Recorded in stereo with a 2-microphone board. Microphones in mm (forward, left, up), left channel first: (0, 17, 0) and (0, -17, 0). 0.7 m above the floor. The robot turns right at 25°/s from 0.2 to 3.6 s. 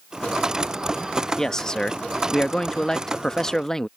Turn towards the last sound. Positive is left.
turn(degrees=15)  # may be behind; listen again after turning